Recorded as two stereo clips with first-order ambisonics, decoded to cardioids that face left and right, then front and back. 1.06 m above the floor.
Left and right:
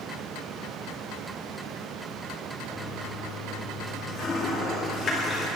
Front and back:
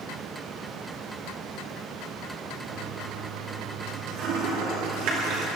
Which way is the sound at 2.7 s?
155° left.